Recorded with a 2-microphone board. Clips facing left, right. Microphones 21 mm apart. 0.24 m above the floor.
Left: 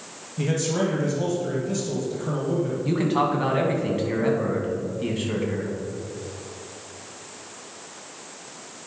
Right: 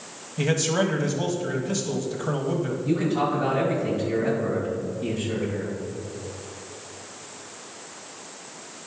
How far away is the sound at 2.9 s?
About 2 m.